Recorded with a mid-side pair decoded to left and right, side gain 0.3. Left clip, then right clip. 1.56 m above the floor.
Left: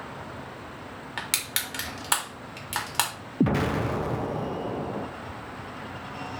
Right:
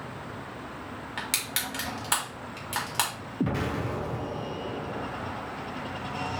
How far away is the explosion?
About 0.6 m.